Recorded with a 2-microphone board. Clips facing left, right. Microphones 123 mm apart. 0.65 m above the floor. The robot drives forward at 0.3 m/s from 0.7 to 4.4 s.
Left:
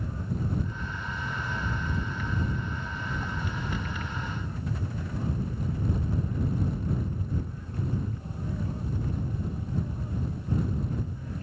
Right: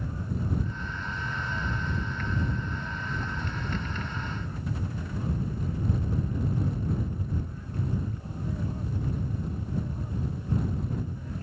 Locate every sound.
Only background noise.